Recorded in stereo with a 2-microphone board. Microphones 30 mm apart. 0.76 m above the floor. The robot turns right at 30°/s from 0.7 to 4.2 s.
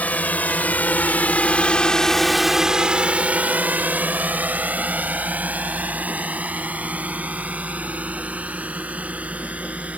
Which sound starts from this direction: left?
A drone, at 0.0 s.